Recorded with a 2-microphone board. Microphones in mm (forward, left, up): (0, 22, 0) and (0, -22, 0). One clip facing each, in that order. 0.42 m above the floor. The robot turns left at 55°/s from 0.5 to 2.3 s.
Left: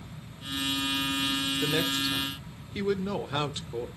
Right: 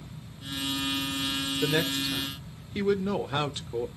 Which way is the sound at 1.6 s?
20° right (ahead or behind).